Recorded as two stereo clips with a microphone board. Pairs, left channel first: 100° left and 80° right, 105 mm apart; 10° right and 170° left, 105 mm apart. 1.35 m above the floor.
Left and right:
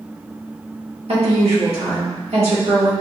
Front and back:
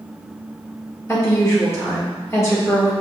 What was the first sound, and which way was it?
A woman speaking, 75° right.